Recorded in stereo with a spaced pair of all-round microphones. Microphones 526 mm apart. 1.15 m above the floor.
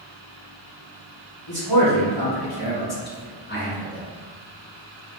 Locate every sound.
1.5 s a man speaking: 45° left (ahead or behind), 1.4 m; by 4.0 s centre (ahead or behind), 0.6 m